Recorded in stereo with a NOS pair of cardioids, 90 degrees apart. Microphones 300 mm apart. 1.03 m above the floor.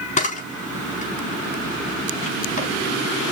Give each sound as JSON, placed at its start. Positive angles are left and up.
{"t": 0.2, "sound": "a camera shutter", "azimuth_deg": 25, "distance_m": 4.5}